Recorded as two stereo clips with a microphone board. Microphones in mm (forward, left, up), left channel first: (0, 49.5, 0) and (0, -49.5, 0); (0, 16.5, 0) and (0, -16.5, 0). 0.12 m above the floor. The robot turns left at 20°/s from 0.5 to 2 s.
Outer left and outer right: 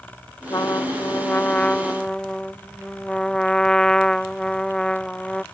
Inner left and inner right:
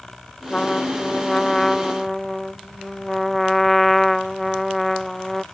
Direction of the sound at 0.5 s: 35° left.